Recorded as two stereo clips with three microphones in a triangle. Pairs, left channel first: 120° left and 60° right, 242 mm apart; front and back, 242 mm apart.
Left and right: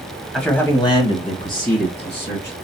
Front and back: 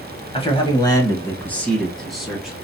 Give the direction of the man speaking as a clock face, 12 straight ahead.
11 o'clock.